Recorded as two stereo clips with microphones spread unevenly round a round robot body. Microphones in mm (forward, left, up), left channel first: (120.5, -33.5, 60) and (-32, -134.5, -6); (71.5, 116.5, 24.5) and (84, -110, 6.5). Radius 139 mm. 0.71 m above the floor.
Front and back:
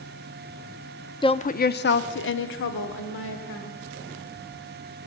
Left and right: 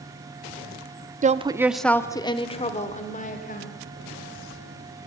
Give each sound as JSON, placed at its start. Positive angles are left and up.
{"t": 1.2, "sound": "a woman speaking", "azimuth_deg": -40, "distance_m": 1.0}